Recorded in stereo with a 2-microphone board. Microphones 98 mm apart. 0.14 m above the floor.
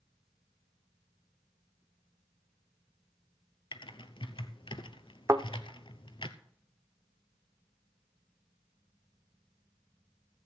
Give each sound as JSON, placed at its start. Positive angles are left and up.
{"t": 3.7, "sound": "typing on a keyboard", "side_deg": 60, "distance_m": 0.8}
{"t": 5.3, "sound": "a thud", "side_deg": -30, "distance_m": 0.8}